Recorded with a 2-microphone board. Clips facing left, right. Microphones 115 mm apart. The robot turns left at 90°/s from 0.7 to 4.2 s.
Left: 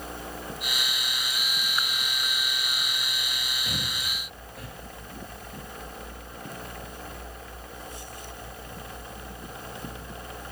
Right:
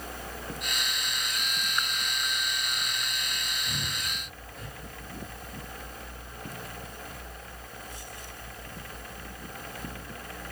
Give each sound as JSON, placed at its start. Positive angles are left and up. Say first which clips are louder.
{"t": 3.6, "sound": "breathing", "louder": "left 1 dB", "side_deg": 45, "distance_m": 2.5}